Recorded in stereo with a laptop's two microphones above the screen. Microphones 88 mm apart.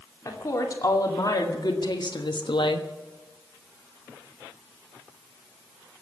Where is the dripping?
I don't hear dripping.